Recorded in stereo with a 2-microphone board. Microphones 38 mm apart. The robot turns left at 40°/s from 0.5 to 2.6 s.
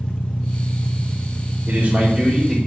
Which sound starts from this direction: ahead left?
An engine running, at 0.0 s.